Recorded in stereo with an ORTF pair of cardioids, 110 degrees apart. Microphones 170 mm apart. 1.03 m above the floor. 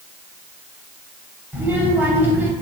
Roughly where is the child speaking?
Ahead.